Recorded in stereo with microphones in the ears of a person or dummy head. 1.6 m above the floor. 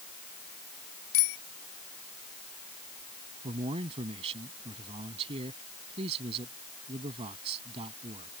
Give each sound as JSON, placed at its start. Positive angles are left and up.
{"t": 1.1, "sound": "a bicycle bell", "side_deg": 70}
{"t": 3.4, "sound": "a man speaking", "side_deg": -30}